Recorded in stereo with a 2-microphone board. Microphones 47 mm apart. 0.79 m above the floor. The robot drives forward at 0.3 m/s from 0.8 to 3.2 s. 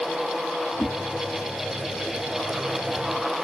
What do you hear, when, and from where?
0.8 s a whoosh: 65° left (ahead or behind), 1.3 m